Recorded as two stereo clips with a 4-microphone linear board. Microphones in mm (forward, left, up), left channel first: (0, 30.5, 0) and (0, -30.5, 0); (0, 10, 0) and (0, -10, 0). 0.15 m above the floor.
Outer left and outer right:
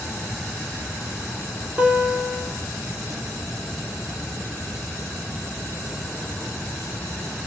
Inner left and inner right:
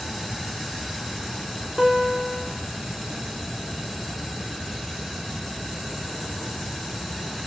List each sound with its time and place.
1.8 s a guitar: 20° right (ahead or behind), 0.7 m